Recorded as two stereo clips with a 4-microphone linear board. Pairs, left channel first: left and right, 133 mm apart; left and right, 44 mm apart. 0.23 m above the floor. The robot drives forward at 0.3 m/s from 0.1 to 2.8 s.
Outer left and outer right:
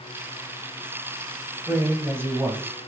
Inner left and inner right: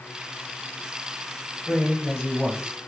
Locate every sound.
1.7 s a man speaking: 15° right (ahead or behind), 1.0 m